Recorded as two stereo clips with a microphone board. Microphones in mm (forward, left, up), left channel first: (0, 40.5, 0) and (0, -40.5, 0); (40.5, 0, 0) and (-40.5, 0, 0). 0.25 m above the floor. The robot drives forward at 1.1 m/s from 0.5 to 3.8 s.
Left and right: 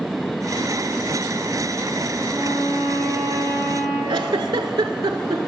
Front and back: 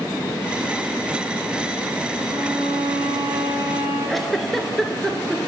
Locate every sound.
2.2 s a violin: 140° left, 2 m; by 4.0 s 160° left, 3.5 m
4.1 s a giggle: 90° right, 0.5 m